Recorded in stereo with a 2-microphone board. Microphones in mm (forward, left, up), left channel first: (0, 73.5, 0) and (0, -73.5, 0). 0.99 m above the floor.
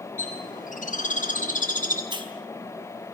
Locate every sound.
0.2 s a bird: 60° left (ahead or behind), 7 m
2.1 s a hiss: 30° right (ahead or behind), 4 m